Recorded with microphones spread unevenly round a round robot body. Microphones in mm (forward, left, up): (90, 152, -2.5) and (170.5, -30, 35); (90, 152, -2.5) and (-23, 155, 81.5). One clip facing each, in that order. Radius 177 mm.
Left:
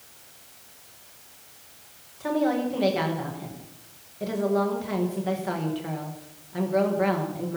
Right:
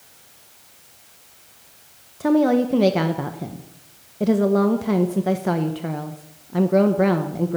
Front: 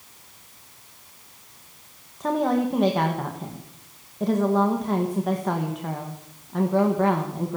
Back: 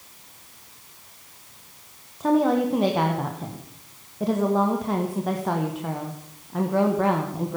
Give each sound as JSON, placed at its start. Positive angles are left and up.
{"t": 2.2, "sound": "a woman speaking", "azimuth_deg": -50, "distance_m": 1.1}